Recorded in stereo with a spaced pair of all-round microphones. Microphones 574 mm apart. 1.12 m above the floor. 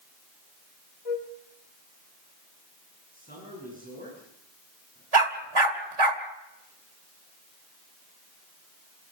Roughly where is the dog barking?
Right.